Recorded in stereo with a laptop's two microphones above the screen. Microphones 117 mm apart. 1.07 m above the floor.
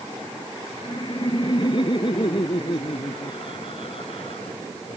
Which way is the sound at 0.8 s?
40° left (ahead or behind).